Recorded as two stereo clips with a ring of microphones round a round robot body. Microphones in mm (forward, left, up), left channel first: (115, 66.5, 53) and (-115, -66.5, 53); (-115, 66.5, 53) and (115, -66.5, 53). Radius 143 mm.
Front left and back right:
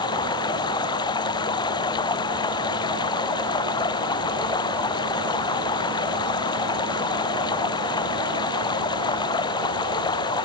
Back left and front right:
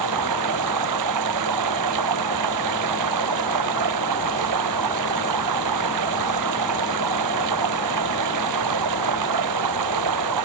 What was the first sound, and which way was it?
Running water, 45° right.